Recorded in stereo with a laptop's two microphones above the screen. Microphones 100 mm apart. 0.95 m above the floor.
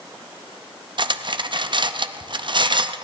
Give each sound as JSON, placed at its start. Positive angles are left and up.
{"t": 1.0, "sound": "cutlery clinking", "side_deg": -55, "distance_m": 0.5}